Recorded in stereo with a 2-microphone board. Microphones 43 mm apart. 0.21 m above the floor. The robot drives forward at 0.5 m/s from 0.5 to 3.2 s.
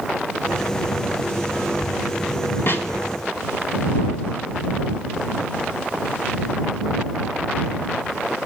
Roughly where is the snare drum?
Left.